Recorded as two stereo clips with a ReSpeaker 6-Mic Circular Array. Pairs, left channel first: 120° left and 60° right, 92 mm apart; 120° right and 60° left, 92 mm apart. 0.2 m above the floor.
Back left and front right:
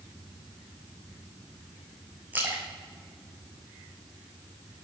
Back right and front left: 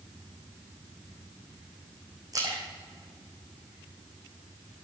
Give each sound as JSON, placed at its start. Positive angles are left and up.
{"t": 2.3, "sound": "a splash", "azimuth_deg": 10, "distance_m": 2.0}